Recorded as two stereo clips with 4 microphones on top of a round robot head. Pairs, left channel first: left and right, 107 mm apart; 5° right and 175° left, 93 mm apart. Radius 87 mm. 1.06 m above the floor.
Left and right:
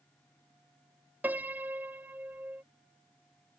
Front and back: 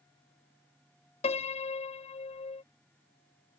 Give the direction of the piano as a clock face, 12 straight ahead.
12 o'clock.